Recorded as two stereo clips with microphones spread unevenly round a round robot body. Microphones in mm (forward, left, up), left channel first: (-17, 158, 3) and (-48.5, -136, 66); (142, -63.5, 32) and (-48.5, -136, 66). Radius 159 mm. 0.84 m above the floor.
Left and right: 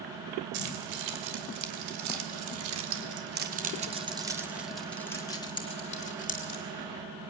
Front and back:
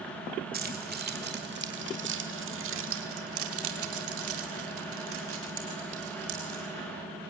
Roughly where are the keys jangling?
Behind right.